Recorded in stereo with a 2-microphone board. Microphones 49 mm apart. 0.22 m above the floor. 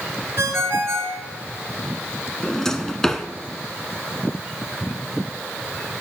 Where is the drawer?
10° left (ahead or behind), 0.7 m.